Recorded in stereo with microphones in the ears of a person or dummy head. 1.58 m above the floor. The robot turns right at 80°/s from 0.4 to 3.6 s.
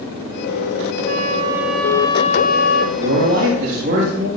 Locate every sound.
1.1 s a flute: 60° right, 0.8 m; by 2.9 s 85° left, 0.8 m
3.0 s a man speaking: 115° right, 3.5 m; by 4.3 s 65° right, 3.5 m